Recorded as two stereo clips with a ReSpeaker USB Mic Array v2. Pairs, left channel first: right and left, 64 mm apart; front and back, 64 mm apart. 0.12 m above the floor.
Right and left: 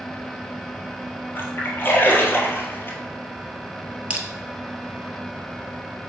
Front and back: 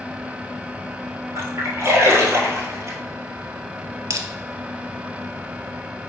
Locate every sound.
1.4 s a splash: 140° right, 1.7 m
4.1 s crushing: 155° left, 1.0 m